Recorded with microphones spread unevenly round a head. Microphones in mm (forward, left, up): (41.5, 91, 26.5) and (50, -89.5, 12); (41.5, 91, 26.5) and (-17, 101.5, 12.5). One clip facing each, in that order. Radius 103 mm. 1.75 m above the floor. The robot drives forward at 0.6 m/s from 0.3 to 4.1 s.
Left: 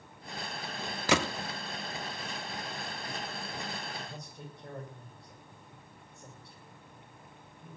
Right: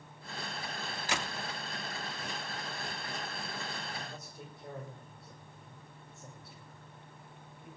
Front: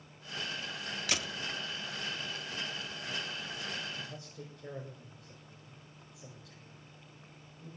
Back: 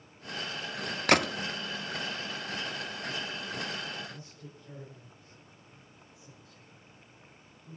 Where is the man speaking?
5° left, 8.5 m.